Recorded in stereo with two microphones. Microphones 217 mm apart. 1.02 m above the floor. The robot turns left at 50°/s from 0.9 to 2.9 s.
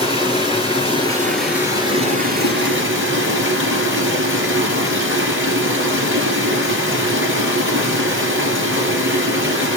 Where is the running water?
25° left, 3.5 m; by 9.8 s 75° right, 3.5 m.